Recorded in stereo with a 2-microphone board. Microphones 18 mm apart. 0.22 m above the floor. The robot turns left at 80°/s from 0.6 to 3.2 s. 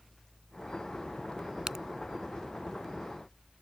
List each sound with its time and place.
1.7 s a crack: 35° right (ahead or behind); by 1.9 s 25° right (ahead or behind)